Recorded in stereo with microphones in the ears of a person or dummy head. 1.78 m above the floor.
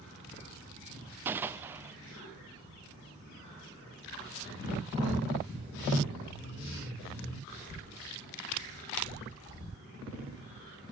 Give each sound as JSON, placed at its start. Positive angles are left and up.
{"t": 1.2, "sound": "a gunshot", "side_deg": -15, "distance_m": 0.7}